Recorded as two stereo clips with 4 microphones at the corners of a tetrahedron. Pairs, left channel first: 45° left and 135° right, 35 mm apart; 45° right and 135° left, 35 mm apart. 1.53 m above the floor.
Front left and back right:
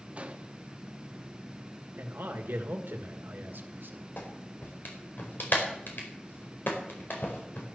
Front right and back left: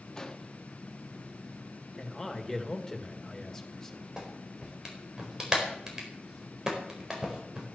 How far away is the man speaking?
About 1.9 m.